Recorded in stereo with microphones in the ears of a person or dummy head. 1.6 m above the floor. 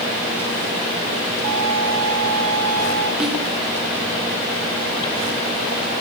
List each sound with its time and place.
1.4 s a violin: 75° right (ahead or behind), 3.5 m
3.2 s a snare drum: 5° right (ahead or behind), 2 m